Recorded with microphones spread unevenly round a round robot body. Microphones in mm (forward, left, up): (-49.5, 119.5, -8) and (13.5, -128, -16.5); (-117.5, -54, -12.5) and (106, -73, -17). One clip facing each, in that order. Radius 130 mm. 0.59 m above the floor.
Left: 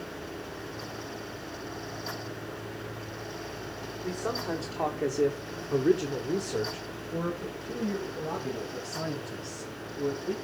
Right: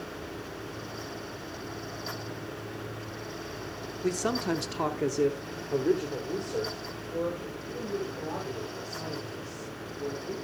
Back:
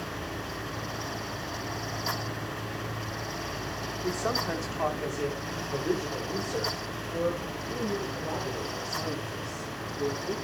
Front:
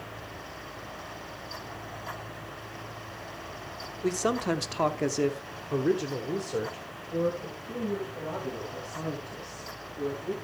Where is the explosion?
I don't hear an explosion.